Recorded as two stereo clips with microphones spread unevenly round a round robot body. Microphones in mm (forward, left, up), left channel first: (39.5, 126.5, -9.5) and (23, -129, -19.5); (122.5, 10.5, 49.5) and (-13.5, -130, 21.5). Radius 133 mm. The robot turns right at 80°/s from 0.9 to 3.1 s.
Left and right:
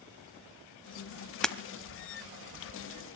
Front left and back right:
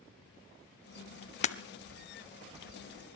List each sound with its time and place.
1.4 s breaking glass: straight ahead, 1.0 m; by 1.6 s 10° left, 1.0 m